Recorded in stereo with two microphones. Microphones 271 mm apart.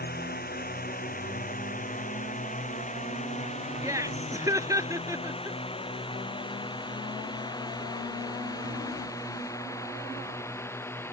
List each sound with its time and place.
0.0 s a drone: 35° left (ahead or behind); by 11.1 s 10° left (ahead or behind)
3.8 s laughter: 10° right (ahead or behind)